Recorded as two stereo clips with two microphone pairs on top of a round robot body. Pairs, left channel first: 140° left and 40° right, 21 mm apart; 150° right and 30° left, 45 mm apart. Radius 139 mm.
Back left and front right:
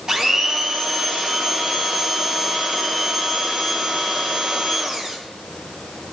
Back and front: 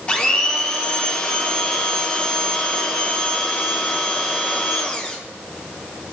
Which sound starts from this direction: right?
A blender, at 0.1 s.